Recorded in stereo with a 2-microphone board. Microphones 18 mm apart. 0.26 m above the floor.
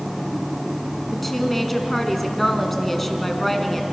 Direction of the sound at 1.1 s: 5° left (ahead or behind).